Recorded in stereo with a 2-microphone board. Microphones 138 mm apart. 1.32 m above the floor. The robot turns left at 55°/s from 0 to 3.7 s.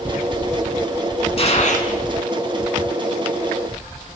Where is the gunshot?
45° left (ahead or behind), 5.5 m; by 1.9 s 70° left (ahead or behind), 5.5 m.